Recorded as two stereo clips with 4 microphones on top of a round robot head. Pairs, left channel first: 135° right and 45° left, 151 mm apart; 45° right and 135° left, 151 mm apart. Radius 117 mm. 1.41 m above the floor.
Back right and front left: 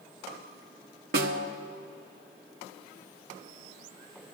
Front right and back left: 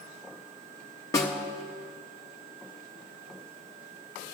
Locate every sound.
1.1 s a snare drum: 25° left, 0.9 m